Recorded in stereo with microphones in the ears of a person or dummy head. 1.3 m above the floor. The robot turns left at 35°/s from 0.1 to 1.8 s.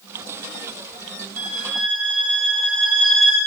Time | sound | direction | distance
1.4 | a violin | 10° right (ahead or behind) | 2.5 m